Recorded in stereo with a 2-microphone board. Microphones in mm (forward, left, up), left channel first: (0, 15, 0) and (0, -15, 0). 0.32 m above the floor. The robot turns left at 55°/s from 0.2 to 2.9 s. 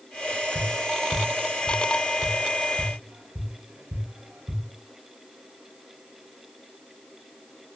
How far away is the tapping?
About 0.6 m.